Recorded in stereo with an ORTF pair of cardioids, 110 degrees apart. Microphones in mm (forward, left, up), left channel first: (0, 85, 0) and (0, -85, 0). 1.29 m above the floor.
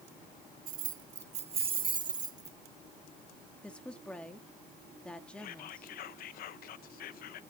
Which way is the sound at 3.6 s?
5° left.